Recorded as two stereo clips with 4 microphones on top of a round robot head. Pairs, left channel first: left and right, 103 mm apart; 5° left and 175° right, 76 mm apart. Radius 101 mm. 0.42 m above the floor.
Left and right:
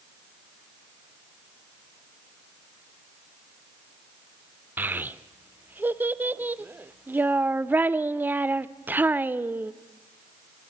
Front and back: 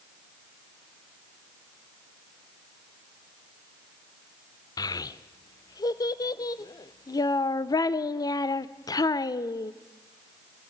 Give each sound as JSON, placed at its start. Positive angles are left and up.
{"t": 4.8, "sound": "a child speaking", "azimuth_deg": -20, "distance_m": 0.6}